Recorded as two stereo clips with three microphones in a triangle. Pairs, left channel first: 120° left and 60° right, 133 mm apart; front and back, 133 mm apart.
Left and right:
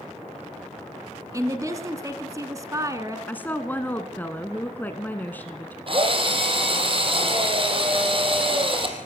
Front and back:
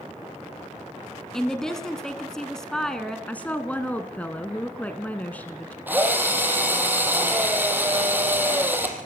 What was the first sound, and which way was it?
A woman speaking, 80° right.